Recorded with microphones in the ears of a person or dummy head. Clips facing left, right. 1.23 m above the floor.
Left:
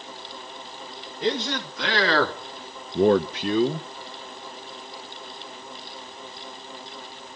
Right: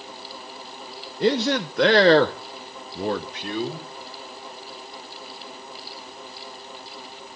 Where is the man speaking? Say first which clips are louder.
Right 5 dB; 60° right (ahead or behind), 1.4 m; by 3.9 s 65° left (ahead or behind), 1.4 m.